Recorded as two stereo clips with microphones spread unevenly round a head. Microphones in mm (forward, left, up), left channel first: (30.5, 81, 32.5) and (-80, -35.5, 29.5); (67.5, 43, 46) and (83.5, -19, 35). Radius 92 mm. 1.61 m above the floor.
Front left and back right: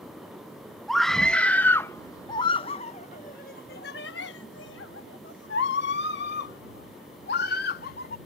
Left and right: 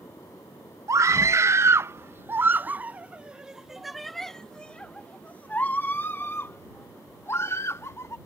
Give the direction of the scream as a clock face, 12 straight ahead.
1 o'clock.